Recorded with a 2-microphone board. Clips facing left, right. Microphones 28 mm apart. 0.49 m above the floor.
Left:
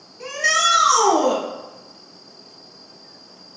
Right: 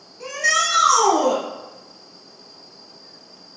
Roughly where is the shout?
Centre.